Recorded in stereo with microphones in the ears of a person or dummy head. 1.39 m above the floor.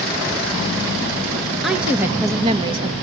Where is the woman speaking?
5° right (ahead or behind), 1.6 m; by 2.9 s 35° right (ahead or behind), 2 m.